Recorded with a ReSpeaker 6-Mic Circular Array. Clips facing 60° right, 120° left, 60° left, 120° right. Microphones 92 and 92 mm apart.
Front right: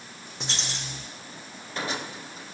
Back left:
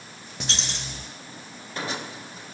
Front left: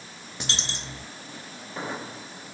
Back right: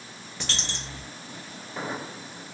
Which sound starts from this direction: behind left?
A dropped coin, at 0.4 s.